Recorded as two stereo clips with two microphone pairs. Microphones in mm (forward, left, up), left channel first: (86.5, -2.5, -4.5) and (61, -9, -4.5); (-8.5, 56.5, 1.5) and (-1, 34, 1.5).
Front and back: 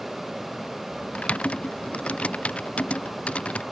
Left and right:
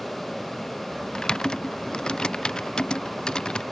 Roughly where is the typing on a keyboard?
Ahead left.